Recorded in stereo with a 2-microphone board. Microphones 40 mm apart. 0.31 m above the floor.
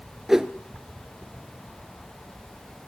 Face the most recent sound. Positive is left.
turn(degrees=-10)  # may be behind; listen again after turning